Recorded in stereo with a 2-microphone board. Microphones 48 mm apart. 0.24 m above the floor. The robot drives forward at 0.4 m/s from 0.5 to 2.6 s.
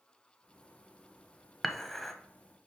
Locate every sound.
1.6 s dishes clattering: centre (ahead or behind), 0.6 m